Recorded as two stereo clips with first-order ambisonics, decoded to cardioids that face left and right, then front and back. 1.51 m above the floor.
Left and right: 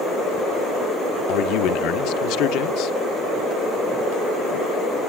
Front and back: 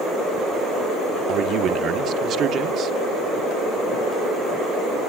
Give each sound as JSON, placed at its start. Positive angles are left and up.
{"t": 1.3, "sound": "a man speaking", "azimuth_deg": 125, "distance_m": 1.1}